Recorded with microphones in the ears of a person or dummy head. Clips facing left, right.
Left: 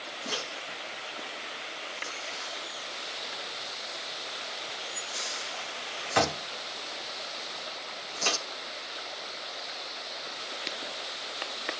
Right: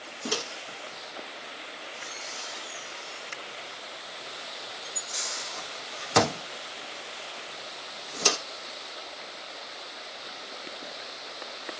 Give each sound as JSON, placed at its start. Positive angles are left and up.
{"t": 0.2, "sound": "a microwave", "side_deg": -60, "distance_m": 0.9}